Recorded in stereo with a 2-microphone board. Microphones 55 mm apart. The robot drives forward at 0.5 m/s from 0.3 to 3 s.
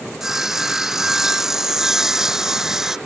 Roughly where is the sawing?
Centre.